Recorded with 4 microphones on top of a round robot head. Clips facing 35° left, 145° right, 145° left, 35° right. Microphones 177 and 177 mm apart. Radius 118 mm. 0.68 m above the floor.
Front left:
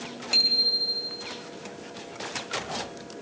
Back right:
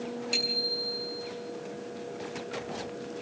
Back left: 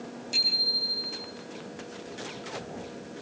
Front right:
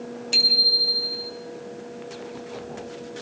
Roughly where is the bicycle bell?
Ahead right.